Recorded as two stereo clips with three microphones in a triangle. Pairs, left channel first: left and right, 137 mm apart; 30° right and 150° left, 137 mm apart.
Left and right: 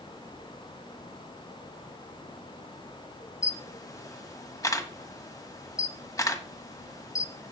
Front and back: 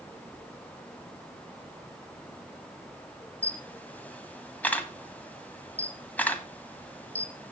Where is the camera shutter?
40° left, 1.2 m.